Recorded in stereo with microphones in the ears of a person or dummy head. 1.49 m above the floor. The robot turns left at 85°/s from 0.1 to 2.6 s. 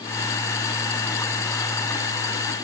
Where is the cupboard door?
No cupboard door in this recording.